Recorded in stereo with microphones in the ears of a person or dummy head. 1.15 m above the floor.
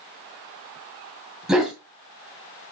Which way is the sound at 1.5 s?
5° right (ahead or behind).